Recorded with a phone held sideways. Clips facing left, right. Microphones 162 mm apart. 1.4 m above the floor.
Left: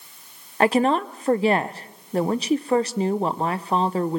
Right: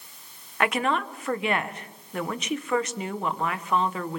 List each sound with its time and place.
0.6 s a woman speaking: 30° left (ahead or behind), 0.9 m